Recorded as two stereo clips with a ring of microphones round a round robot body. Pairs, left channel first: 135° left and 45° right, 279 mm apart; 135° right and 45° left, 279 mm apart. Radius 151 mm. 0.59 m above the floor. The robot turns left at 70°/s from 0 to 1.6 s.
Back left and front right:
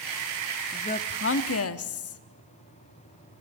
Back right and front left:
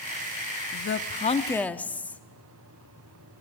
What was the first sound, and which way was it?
A woman speaking, 155° right.